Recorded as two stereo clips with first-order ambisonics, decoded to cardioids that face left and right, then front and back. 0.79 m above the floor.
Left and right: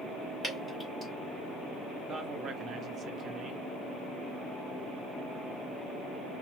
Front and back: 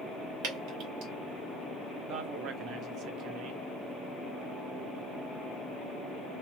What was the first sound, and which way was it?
Dripping, 175° right.